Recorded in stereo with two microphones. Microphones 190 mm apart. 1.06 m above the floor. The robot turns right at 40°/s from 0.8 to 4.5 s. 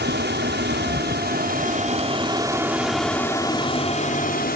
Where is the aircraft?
85° right; by 4.6 s 60° left.